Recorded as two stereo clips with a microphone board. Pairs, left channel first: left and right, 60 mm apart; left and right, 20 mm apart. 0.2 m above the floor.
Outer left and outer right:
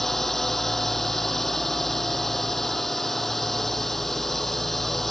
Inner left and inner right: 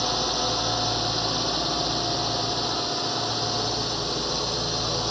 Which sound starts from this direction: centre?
A drone, at 0.0 s.